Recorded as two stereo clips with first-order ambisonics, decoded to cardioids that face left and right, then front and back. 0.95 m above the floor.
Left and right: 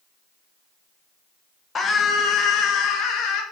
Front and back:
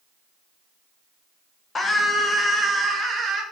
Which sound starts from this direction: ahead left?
A scream, at 1.8 s.